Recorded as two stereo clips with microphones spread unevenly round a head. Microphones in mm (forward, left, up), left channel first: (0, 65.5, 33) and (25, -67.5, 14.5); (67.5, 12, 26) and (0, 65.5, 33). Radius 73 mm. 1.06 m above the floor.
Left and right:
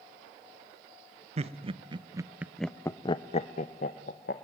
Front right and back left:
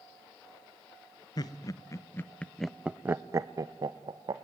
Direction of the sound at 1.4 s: 60° right.